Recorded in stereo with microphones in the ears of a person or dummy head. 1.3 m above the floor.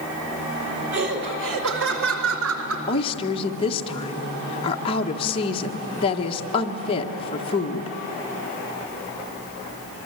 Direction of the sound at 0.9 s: 60° right (ahead or behind).